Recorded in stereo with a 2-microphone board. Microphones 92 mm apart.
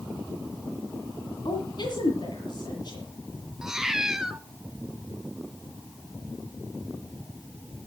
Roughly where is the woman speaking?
Left.